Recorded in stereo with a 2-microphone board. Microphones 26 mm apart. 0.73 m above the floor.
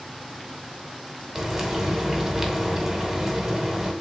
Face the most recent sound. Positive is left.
turn(degrees=-10)  # may be behind; listen again after turning